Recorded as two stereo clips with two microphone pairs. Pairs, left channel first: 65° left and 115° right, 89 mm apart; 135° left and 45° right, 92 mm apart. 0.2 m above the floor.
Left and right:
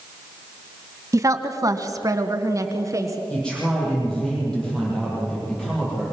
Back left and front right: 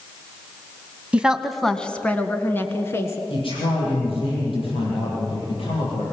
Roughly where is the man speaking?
Behind left.